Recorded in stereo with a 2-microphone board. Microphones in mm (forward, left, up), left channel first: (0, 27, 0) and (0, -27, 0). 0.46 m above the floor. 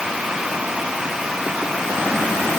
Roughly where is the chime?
I don't hear a chime.